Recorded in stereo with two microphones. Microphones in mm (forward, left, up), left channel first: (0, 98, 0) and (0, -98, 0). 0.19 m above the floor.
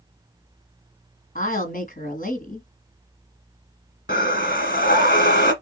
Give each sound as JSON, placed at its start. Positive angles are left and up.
{"t": 1.4, "sound": "a woman speaking", "side_deg": 50, "distance_m": 1.7}
{"t": 4.1, "sound": "breathing", "side_deg": 55, "distance_m": 1.3}